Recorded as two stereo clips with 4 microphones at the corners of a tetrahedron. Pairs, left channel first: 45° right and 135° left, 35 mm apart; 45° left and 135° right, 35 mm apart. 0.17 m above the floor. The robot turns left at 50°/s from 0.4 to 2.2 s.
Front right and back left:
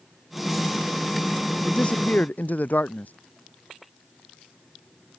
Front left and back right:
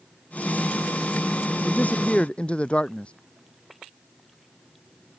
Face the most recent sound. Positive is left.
turn(degrees=-10)